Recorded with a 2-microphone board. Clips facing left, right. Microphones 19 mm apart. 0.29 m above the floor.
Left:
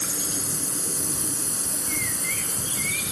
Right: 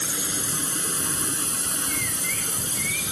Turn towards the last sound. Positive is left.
turn(degrees=-55)  # may be behind; listen again after turning